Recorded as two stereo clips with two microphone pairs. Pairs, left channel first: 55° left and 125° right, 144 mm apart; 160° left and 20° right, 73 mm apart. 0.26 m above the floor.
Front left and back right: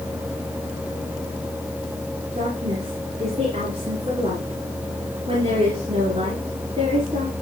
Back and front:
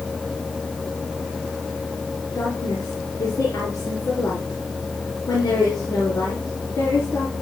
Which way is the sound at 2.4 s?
165° right.